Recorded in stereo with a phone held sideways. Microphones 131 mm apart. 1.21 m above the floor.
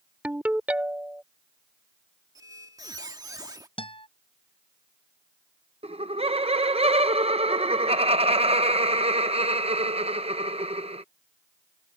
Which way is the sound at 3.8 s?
45° left (ahead or behind).